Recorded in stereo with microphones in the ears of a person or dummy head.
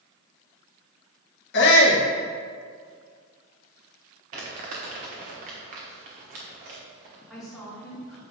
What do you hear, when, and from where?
1.5 s a shout: 55° left (ahead or behind), 1.2 m
4.3 s crumpling: 40° right (ahead or behind), 1.1 m
7.3 s a woman speaking: centre (ahead or behind), 2.5 m